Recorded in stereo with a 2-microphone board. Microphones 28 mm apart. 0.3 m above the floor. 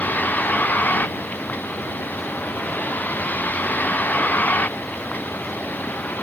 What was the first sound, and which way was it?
A vehicle, 85° left.